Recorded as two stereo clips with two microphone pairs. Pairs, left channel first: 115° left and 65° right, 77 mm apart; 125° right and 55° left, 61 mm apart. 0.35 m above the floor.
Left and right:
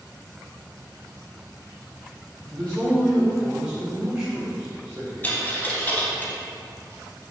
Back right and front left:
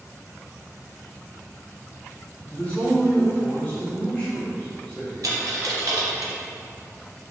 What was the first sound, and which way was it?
A man speaking, 175° right.